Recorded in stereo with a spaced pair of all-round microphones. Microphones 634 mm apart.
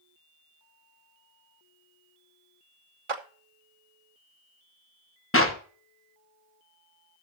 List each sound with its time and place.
3.1 s a clap: 50° right (ahead or behind), 1.1 m
5.3 s a clap: 20° left (ahead or behind), 1.2 m